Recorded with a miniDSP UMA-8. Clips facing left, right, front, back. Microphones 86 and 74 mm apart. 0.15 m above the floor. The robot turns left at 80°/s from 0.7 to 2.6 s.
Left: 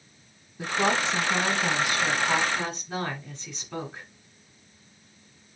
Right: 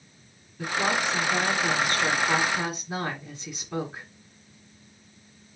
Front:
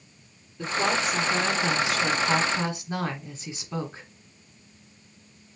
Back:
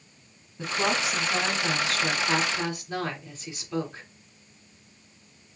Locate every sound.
0.6 s a woman speaking: 135° left, 1.4 m; by 4.1 s 15° right, 1.4 m